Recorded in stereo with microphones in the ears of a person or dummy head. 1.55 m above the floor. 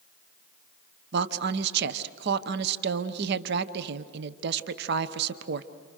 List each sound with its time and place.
1.1 s a woman speaking: 60° right (ahead or behind), 1.0 m